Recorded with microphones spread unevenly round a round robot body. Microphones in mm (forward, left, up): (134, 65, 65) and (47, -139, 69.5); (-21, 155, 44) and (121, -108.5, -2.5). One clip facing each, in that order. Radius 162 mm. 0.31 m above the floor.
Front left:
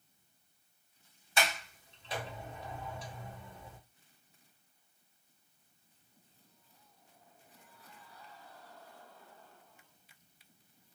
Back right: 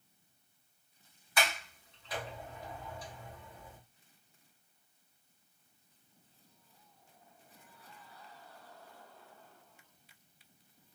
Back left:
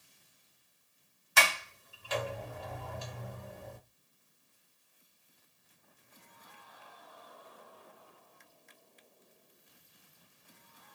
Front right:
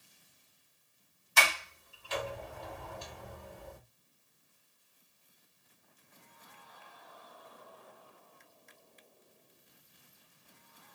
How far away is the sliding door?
About 1.3 m.